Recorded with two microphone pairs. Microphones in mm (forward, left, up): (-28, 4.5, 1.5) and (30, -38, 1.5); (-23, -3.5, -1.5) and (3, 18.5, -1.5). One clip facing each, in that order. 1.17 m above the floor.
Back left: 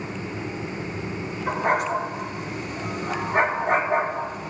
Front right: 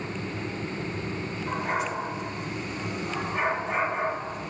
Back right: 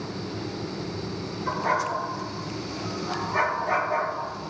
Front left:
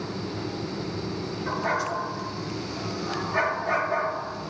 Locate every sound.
1.5 s a dog barking: 120° left, 5 m